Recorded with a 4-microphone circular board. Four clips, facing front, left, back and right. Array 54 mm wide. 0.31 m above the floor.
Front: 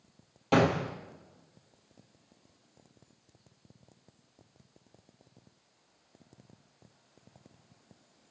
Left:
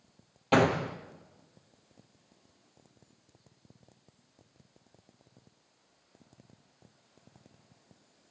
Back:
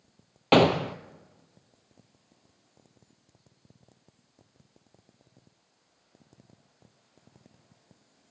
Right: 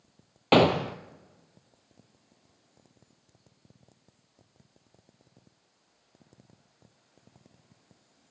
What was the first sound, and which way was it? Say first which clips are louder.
A gunshot: right 4 dB, back 5 dB; 140° right.